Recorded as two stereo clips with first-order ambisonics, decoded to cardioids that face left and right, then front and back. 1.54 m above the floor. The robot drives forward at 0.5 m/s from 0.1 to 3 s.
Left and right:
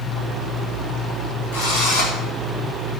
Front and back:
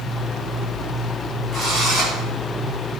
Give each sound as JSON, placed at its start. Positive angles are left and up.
{"t": 1.5, "sound": "a drill", "azimuth_deg": 100, "distance_m": 8.5}